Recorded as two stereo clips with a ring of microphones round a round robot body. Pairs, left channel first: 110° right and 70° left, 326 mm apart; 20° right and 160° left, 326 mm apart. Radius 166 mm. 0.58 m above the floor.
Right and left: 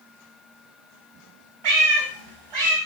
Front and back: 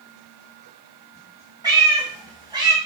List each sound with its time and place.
1.6 s a cat meowing: 80° left, 1.6 m